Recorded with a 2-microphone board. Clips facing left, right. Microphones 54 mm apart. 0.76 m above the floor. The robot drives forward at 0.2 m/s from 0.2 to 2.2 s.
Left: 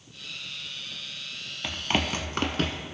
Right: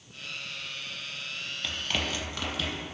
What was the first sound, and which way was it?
Running footsteps, 20° left (ahead or behind).